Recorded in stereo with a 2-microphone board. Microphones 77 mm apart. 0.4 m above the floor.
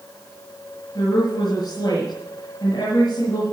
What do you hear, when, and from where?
0.9 s a woman speaking: 50° left (ahead or behind), 6.5 m